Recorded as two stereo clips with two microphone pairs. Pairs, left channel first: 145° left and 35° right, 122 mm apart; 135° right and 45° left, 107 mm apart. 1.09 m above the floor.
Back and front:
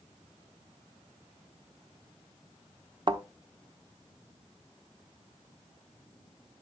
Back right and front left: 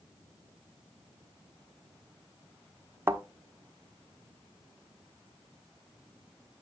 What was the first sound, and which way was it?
A thud, 15° right.